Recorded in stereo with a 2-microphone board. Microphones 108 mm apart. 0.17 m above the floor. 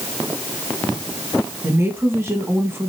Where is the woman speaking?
25° right (ahead or behind), 1.6 m.